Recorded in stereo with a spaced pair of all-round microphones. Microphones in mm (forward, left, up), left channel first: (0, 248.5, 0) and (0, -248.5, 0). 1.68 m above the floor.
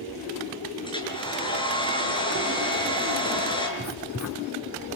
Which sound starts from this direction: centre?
A hair dryer, at 0.8 s.